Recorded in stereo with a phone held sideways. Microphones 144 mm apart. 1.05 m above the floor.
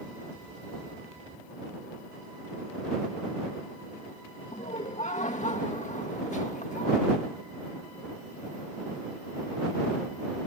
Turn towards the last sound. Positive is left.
turn(degrees=60)  # may be behind; listen again after turning